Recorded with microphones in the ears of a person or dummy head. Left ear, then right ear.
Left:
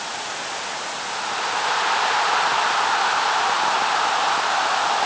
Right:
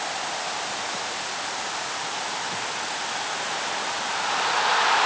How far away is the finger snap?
I don't hear a finger snap.